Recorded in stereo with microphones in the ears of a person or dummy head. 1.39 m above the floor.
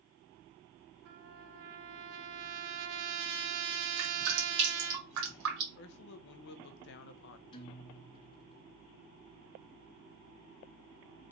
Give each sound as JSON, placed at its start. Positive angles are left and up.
{"t": 1.1, "sound": "a trumpet", "side_deg": -65, "distance_m": 0.5}
{"t": 4.0, "sound": "dripping", "side_deg": -70, "distance_m": 1.7}
{"t": 5.8, "sound": "a man speaking", "side_deg": 70, "distance_m": 0.6}
{"t": 7.5, "sound": "a guitar", "side_deg": 25, "distance_m": 0.9}